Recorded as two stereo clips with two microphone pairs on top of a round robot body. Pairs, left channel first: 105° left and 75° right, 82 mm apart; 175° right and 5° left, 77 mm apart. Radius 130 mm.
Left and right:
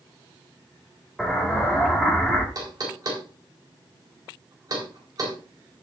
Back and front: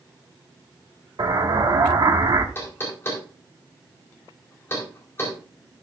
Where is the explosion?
20° left, 1.9 m.